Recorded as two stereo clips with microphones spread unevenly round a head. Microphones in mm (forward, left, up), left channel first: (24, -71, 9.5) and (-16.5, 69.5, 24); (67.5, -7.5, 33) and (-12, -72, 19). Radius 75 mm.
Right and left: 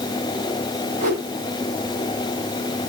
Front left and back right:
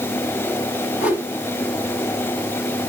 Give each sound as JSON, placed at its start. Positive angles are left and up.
{"t": 1.0, "sound": "a whoosh", "azimuth_deg": 65, "distance_m": 9.0}